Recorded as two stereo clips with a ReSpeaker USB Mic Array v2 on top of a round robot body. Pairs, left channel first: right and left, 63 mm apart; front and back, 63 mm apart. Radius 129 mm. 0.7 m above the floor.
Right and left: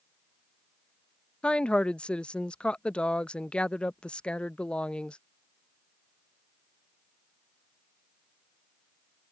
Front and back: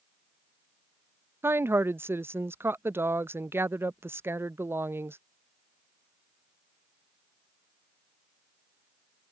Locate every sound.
1.4 s a woman speaking: 155° right